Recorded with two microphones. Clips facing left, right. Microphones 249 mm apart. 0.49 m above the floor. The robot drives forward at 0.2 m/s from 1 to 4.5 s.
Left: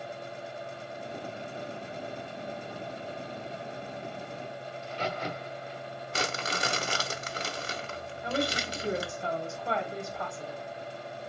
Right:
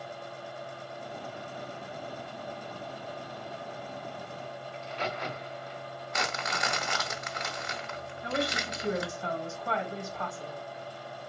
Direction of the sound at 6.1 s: 35° left (ahead or behind).